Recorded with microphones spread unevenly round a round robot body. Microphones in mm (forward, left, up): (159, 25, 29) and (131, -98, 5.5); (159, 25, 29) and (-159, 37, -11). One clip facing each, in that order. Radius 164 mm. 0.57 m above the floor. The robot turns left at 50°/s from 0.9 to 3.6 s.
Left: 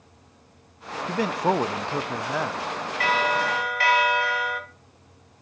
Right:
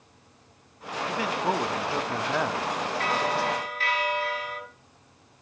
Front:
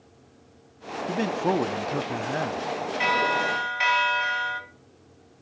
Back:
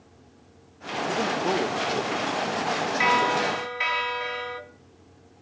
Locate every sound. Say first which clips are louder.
1.1 s a man speaking: left 4 dB, front 2 dB; 45° left, 0.7 m; by 2.6 s 30° right, 0.7 m
3.0 s a bell: left 5 dB, back 3 dB; 100° left, 2.5 m; by 4.6 s 70° left, 2.5 m